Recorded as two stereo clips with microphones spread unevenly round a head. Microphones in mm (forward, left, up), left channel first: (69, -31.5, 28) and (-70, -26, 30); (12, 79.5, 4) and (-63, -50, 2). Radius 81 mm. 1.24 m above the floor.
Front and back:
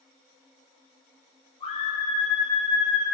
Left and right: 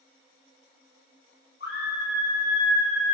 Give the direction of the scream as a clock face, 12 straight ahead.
10 o'clock.